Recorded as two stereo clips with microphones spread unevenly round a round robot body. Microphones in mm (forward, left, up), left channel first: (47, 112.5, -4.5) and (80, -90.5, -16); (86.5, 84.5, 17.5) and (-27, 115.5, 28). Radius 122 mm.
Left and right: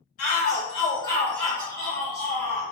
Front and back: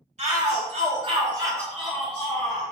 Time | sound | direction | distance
0.2 | a shout | 155° left | 1.6 m